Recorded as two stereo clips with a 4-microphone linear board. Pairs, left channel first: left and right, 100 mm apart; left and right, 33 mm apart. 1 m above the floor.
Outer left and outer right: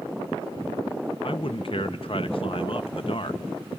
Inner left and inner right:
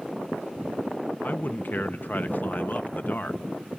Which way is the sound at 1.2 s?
60° left (ahead or behind).